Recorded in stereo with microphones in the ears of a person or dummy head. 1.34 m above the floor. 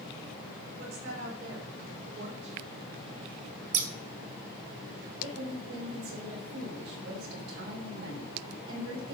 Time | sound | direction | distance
0.8 | a woman speaking | 85° right | 6 m
3.7 | scissors | 50° right (ahead or behind) | 1.6 m
5.2 | a woman speaking | 85° right | 6.5 m